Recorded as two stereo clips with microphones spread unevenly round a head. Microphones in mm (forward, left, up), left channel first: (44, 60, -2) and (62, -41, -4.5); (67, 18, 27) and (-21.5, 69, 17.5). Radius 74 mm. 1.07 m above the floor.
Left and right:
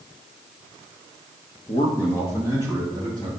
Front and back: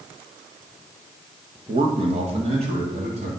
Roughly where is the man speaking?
Behind left.